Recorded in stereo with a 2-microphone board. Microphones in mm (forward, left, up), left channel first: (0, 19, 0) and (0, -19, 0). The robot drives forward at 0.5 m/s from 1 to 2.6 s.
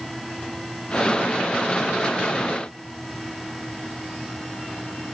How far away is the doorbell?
No doorbell in this recording.